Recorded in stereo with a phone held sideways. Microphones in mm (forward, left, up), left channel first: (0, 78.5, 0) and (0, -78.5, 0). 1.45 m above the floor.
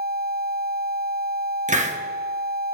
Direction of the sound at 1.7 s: 50° right (ahead or behind).